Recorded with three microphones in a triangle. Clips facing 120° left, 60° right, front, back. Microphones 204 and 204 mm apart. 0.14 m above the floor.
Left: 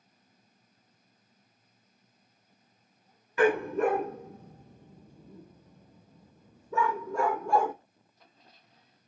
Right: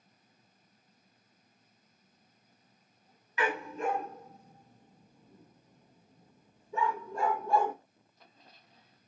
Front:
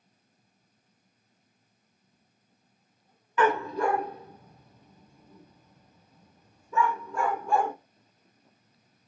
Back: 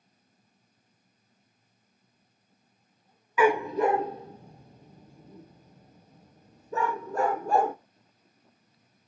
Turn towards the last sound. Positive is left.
turn(degrees=130)